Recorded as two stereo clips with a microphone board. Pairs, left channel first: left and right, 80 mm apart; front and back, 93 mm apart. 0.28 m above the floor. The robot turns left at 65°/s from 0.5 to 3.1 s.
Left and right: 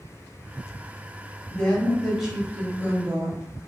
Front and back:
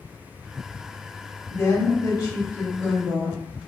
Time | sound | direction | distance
1.5 | a woman speaking | 35° left | 1.0 m